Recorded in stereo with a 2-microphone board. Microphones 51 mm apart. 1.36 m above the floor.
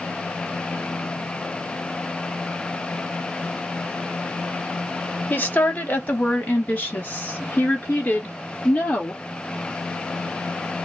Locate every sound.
5.3 s a woman speaking: 40° left (ahead or behind), 0.8 m; by 9.2 s 30° left (ahead or behind), 3 m